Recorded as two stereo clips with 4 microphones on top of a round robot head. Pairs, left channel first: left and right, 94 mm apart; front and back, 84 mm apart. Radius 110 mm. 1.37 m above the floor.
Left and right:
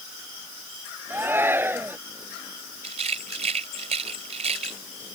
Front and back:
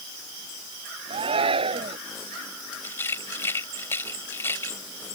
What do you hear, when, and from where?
1.1 s a shout: 160° right
2.8 s a rattle: 75° right